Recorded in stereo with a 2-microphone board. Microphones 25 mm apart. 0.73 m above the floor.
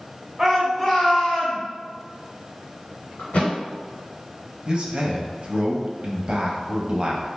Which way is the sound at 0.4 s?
20° right (ahead or behind).